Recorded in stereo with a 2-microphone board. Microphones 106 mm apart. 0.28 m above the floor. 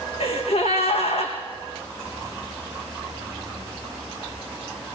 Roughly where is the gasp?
Left.